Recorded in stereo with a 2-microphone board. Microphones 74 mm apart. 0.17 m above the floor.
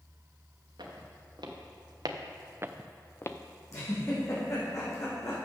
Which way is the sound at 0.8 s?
85° right.